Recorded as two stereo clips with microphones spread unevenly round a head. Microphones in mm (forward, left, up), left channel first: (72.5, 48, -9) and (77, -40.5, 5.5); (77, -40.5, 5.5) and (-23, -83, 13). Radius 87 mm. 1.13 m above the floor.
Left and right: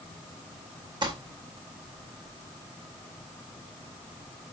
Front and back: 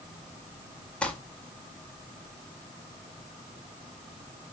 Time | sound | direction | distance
1.0 | crumpling | 55° right | 4.5 m